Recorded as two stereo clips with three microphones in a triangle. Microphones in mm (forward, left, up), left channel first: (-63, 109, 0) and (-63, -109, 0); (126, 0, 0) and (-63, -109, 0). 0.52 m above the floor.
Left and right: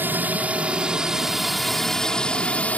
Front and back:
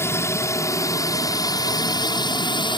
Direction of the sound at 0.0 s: 25° right.